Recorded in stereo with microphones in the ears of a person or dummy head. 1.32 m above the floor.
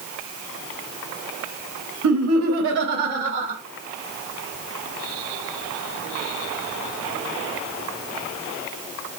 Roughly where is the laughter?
Right.